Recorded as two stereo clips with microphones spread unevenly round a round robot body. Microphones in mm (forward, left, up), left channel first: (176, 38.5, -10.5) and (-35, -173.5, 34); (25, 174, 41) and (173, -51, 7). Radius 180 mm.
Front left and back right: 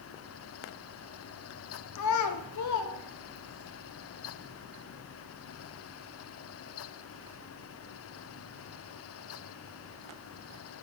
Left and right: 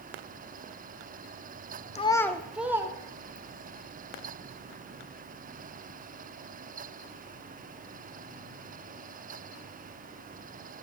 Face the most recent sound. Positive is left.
turn(degrees=20)